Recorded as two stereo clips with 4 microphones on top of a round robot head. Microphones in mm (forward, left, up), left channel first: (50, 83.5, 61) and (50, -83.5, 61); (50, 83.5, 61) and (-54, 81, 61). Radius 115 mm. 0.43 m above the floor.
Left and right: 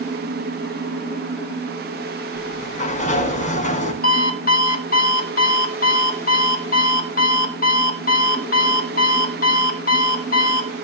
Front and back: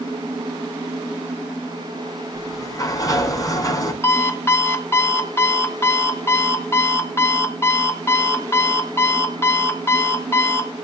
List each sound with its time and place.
2.3 s a sliding door: 50° left, 5 m
4.0 s an alarm clock: 65° left, 3 m